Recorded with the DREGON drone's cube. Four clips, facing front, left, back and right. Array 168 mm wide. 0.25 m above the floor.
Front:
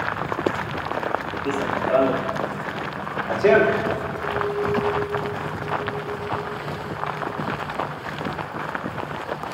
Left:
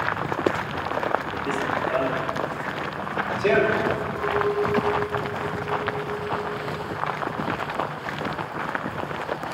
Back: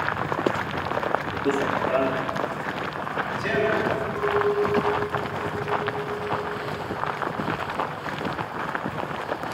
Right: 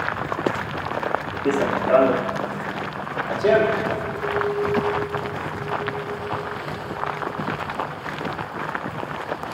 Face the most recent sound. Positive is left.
turn(degrees=-165)